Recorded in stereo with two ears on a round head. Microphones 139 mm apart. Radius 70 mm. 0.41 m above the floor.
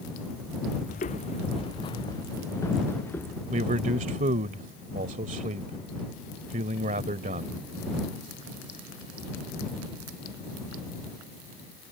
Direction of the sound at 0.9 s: 50° left (ahead or behind).